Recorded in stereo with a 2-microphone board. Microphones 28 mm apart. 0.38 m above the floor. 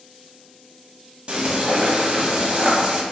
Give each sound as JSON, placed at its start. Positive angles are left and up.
{"t": 1.3, "sound": "frying", "side_deg": -45, "distance_m": 1.1}